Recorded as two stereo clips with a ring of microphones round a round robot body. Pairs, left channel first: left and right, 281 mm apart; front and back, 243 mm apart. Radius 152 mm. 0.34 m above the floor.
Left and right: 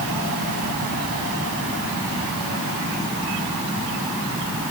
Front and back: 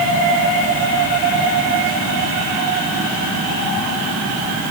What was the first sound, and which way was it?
Only background noise.